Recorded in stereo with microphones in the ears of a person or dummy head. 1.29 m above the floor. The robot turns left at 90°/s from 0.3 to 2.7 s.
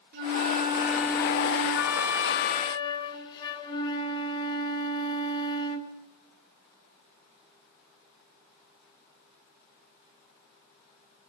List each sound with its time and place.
0.1 s a flute: 115° right, 2 m; by 5.9 s 30° left, 2 m